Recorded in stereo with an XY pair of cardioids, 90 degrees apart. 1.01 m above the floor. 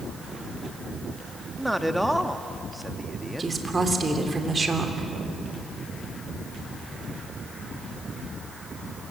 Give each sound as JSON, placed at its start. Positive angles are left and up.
{"t": 1.6, "sound": "a man speaking", "azimuth_deg": -5, "distance_m": 1.5}
{"t": 3.4, "sound": "a woman speaking", "azimuth_deg": -30, "distance_m": 3.0}